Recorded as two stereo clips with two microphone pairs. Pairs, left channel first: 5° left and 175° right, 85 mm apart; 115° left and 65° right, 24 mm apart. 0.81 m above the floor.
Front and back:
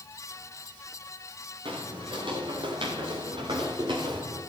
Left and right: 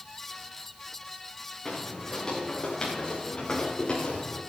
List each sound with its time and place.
1.6 s footsteps: 175° right, 6 m; by 4.4 s 160° left, 6.5 m